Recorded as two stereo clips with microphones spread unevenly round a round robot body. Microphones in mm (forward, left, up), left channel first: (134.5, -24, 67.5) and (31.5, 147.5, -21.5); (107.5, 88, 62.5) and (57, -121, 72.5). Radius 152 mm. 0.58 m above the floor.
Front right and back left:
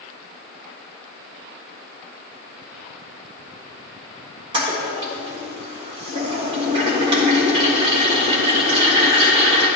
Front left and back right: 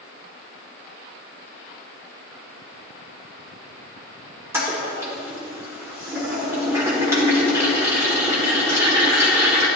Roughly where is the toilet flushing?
Behind.